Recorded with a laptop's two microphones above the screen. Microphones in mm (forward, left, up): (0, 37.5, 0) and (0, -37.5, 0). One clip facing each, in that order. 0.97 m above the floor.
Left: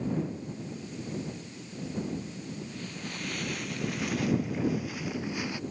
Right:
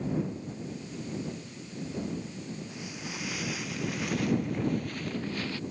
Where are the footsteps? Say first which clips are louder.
Even; 10° right (ahead or behind); by 5.6 s 15° left (ahead or behind).